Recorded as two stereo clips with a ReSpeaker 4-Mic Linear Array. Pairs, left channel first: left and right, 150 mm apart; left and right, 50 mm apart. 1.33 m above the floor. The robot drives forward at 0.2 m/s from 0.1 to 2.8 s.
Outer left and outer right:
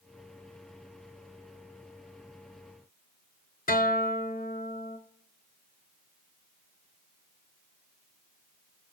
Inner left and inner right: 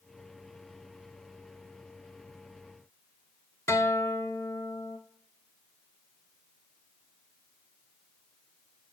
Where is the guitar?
70° left (ahead or behind), 0.6 m.